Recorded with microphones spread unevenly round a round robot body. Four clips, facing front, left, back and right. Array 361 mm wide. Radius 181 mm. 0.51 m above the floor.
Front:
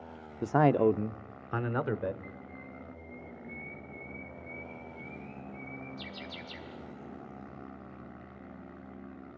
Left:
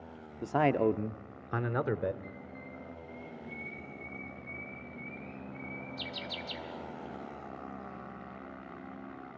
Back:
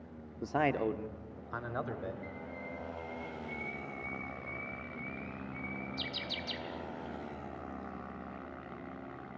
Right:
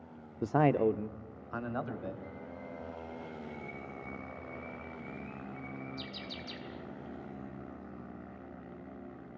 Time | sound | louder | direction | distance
0.4 | a man speaking | even, front 7 dB | 40° right | 0.9 m
2.2 | a bird | right 2 dB, back 3 dB | 150° left | 5 m